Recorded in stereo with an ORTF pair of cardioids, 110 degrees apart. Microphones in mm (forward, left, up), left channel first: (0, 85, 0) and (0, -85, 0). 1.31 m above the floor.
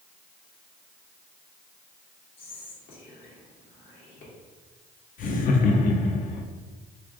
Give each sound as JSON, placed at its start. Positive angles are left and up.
{"t": 2.4, "sound": "whispering", "azimuth_deg": 65, "distance_m": 1.5}
{"t": 5.2, "sound": "laughter", "azimuth_deg": 55, "distance_m": 0.7}